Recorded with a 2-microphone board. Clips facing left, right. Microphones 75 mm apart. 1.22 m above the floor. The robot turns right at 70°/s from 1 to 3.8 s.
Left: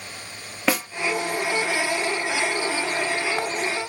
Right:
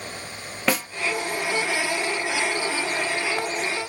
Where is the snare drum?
5° left (ahead or behind), 0.8 m.